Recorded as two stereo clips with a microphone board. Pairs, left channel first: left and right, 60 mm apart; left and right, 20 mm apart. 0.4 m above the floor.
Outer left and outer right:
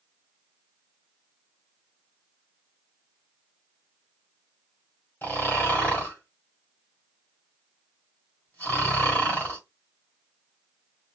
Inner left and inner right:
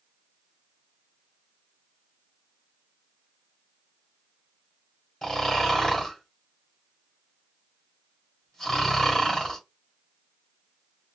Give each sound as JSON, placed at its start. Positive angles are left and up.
{"t": 5.2, "sound": "snoring", "side_deg": 35, "distance_m": 2.0}